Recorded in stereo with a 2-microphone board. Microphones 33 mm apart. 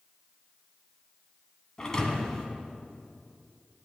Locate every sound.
1.8 s a thud: 20° left (ahead or behind), 1.4 m